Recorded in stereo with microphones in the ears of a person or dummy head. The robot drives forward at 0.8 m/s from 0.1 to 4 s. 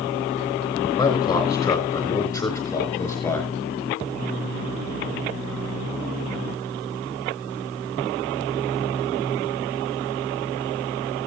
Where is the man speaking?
20° left (ahead or behind), 5 m; by 3.5 s 15° left (ahead or behind), 7 m.